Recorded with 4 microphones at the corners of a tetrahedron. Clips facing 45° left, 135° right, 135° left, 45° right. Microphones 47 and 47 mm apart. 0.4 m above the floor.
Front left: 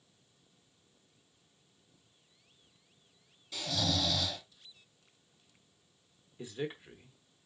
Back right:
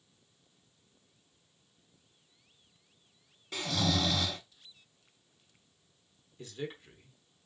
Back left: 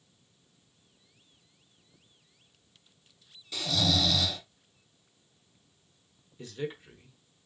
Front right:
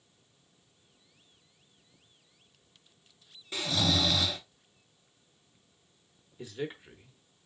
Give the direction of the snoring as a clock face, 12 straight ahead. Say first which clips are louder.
Back right 3 dB, even; 3 o'clock.